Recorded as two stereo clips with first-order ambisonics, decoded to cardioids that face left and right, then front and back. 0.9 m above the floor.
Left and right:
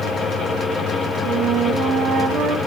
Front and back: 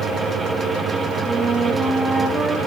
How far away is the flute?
About 0.7 m.